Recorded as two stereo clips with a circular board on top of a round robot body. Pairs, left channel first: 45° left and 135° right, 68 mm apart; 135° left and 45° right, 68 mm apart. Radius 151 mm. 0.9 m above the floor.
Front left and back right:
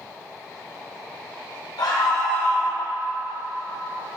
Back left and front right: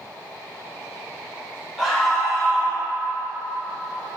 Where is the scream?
40° left, 2 m.